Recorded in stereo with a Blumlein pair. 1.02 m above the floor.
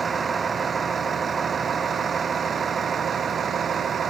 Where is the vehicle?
15° right; by 4.1 s 20° right.